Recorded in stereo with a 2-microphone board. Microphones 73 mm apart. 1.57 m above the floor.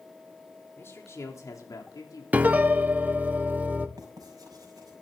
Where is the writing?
55° right (ahead or behind), 5.5 m.